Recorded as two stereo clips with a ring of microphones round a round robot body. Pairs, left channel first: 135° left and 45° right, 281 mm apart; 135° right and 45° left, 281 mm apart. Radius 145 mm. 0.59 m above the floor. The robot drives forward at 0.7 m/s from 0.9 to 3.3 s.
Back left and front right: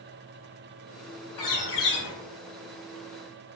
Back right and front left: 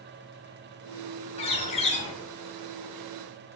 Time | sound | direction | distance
1.4 | a bird | 155° left | 6.5 m